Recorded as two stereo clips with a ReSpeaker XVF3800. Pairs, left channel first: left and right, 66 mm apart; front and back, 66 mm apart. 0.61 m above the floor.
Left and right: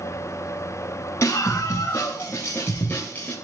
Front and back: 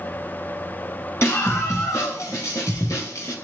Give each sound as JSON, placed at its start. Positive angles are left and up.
{"t": 1.2, "sound": "a scream", "azimuth_deg": 45, "distance_m": 4.0}